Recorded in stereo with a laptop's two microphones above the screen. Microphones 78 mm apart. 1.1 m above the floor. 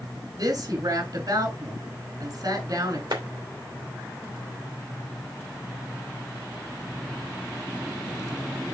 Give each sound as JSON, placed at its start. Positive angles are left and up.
{"t": 0.4, "sound": "a woman speaking", "side_deg": -55, "distance_m": 3.5}
{"t": 3.1, "sound": "a clap", "side_deg": -65, "distance_m": 3.0}